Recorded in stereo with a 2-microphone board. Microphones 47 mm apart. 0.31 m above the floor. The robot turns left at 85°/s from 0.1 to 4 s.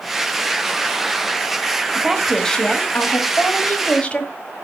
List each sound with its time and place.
1.9 s a woman speaking: 150° right, 1.4 m; by 4.3 s 35° left, 1.4 m